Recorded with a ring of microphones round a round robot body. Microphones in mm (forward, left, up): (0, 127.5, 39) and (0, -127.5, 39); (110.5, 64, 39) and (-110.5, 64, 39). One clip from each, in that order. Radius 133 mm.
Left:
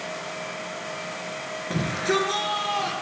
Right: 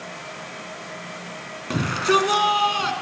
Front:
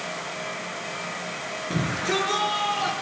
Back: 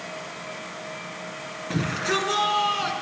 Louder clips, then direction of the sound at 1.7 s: Right 5 dB, back 1 dB; 105° right.